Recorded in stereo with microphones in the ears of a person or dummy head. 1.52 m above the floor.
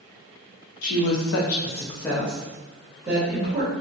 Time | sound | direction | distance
0.8 | a woman speaking | 80° left | 0.7 m